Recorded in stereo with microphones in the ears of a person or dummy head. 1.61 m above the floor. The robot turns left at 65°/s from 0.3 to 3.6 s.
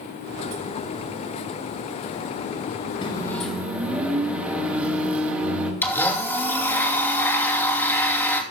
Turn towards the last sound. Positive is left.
turn(degrees=10)  # may be behind; listen again after turning